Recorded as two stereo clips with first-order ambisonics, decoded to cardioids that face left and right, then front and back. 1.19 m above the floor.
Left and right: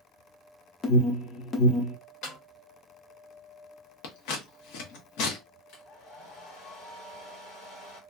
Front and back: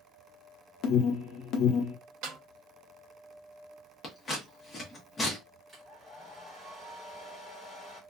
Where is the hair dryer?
95° left, 1.5 m.